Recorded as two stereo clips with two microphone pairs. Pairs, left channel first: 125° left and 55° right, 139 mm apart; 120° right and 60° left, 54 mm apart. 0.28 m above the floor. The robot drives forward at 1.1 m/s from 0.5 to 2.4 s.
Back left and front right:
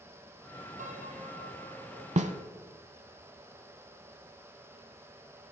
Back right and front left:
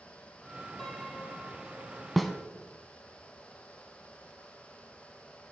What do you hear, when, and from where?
0.8 s a piano: 40° right, 3 m; by 2.1 s 65° right, 2 m
2.2 s a snare drum: 30° right, 0.7 m; by 2.3 s 40° right, 0.6 m